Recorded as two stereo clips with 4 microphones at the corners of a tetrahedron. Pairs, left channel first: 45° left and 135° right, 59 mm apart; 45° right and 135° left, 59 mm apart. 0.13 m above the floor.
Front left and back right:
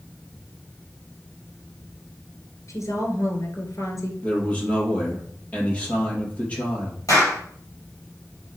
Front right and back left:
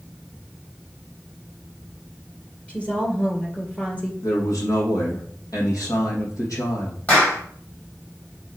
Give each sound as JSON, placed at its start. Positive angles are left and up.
{"t": 2.7, "sound": "a woman speaking", "azimuth_deg": 20, "distance_m": 2.0}
{"t": 4.2, "sound": "a man speaking", "azimuth_deg": -25, "distance_m": 3.5}
{"t": 7.1, "sound": "a clap", "azimuth_deg": 20, "distance_m": 4.0}